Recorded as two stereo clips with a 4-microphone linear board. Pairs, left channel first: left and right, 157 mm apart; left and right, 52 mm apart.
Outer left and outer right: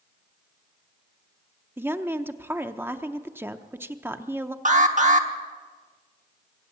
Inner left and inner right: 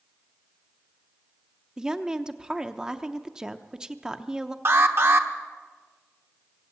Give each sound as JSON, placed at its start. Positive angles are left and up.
{"t": 1.8, "sound": "a woman speaking", "side_deg": -15, "distance_m": 0.6}
{"t": 4.7, "sound": "an alarm", "side_deg": -55, "distance_m": 1.0}